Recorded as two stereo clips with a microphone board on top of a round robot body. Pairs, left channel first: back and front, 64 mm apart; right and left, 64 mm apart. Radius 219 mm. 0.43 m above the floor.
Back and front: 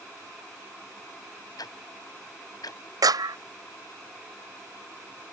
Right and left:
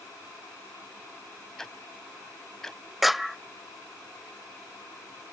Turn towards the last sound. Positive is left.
turn(degrees=0)